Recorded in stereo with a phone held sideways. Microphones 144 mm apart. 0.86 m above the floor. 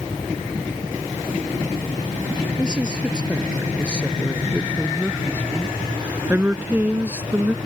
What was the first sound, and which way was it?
A woman speaking, 5° right (ahead or behind).